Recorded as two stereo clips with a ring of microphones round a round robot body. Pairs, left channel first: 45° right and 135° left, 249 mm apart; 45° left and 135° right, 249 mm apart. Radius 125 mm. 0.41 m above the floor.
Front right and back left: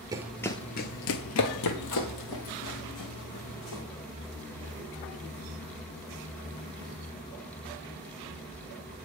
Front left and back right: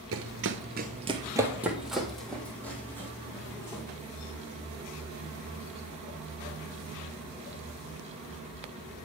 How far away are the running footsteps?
About 0.5 m.